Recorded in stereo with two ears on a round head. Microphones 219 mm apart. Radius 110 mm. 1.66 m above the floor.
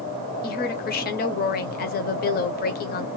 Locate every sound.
0.4 s a woman speaking: 40° left (ahead or behind), 0.7 m